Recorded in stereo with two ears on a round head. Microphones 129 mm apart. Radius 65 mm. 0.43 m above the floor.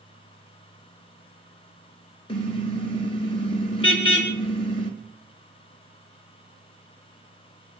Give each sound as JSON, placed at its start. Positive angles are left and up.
{"t": 2.3, "sound": "a car horn", "side_deg": 40, "distance_m": 3.0}